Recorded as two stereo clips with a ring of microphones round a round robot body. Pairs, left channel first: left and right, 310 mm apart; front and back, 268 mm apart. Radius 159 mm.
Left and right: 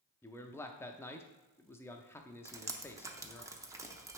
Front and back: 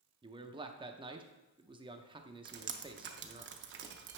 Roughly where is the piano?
I don't hear a piano.